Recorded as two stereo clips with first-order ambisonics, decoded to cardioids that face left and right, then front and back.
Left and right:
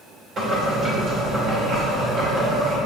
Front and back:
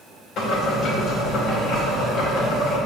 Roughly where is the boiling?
Ahead right.